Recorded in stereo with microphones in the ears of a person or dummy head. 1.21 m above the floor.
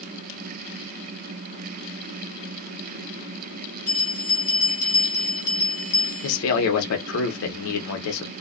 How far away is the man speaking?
About 0.8 m.